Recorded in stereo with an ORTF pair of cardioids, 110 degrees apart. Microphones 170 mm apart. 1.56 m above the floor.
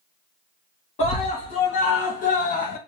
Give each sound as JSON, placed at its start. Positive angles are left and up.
{"t": 1.0, "sound": "a scream", "azimuth_deg": 40, "distance_m": 2.0}